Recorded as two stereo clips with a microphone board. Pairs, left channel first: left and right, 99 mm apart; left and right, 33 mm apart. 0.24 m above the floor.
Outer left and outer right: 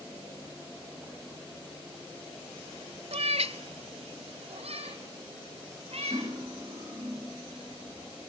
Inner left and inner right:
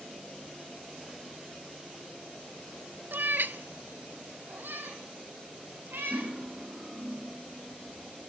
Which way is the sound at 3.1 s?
80° right.